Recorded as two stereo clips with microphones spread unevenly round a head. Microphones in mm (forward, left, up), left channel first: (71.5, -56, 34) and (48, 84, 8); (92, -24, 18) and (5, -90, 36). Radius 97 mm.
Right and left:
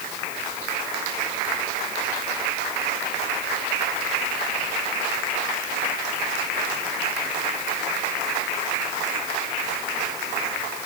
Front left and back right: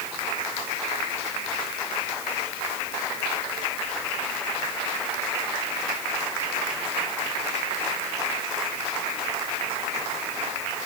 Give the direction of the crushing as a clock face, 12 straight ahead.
No crushing in this recording.